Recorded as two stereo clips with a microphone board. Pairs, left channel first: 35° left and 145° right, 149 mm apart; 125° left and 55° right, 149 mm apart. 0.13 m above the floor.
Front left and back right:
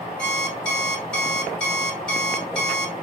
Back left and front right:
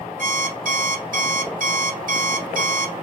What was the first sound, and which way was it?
An alarm clock, 50° right.